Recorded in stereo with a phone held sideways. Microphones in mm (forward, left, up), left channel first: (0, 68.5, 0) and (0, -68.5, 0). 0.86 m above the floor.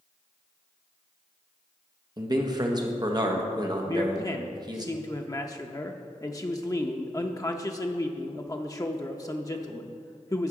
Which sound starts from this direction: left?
A man speaking, at 3.9 s.